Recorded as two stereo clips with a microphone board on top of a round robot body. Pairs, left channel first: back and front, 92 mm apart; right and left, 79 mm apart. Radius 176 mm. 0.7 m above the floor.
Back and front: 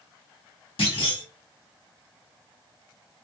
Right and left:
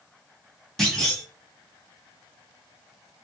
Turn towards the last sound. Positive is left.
turn(degrees=-175)